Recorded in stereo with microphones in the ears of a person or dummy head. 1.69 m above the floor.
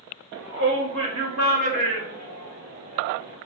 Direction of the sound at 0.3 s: 65° right (ahead or behind).